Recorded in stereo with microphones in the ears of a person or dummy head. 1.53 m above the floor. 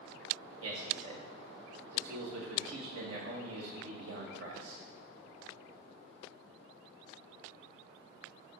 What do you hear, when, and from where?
0.6 s a man speaking: 85° right, 2.5 m